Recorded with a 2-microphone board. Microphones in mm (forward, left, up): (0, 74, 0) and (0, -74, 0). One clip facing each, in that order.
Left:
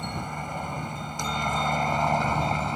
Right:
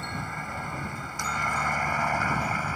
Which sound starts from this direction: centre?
A helicopter, at 0.0 s.